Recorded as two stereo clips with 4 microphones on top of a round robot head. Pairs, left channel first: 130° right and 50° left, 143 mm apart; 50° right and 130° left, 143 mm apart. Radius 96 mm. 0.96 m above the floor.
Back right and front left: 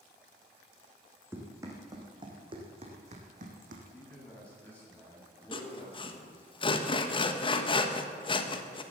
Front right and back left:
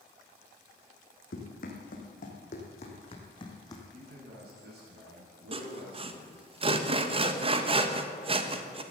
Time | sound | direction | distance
1.3 | running footsteps | 25° right | 3 m
3.9 | a man speaking | 150° left | 7.5 m
5.5 | sawing | straight behind | 1.3 m